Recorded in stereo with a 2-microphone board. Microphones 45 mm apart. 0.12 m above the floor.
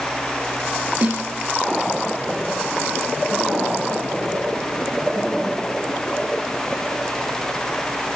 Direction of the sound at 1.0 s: 40° right (ahead or behind).